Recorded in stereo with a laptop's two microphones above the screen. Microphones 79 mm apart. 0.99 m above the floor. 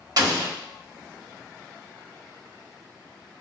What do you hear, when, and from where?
0.2 s an explosion: 55° right (ahead or behind), 1.0 m